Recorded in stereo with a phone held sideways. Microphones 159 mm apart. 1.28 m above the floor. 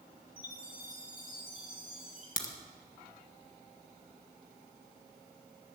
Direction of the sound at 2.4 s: 60° left (ahead or behind).